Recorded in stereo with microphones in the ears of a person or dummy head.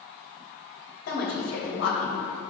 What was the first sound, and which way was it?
A woman speaking, 60° left (ahead or behind).